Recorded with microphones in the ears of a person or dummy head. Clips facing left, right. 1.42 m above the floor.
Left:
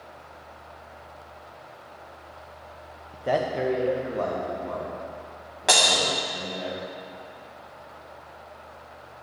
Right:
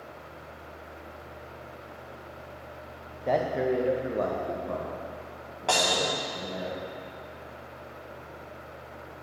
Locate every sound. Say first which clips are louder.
3.1 s a man speaking: left 1 dB; 15° left (ahead or behind), 0.6 m; by 6.7 s 55° right (ahead or behind), 1.9 m
5.7 s breaking glass: left 2 dB; 25° left (ahead or behind), 0.6 m